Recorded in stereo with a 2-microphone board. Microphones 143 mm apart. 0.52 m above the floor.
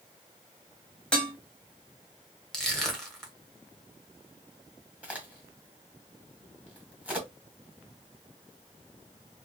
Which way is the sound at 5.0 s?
10° right (ahead or behind).